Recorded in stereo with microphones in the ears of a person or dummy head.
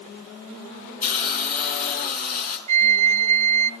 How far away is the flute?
About 0.6 m.